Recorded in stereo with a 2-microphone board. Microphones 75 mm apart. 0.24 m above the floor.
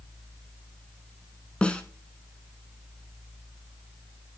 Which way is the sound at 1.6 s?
15° left (ahead or behind).